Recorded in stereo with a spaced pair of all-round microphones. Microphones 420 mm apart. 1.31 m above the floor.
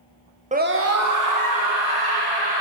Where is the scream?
15° right (ahead or behind), 0.6 m; by 2.6 s 65° right (ahead or behind), 1.8 m.